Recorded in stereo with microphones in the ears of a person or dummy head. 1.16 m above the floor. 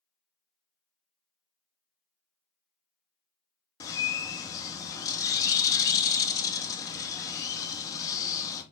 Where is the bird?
20° left (ahead or behind), 0.7 m.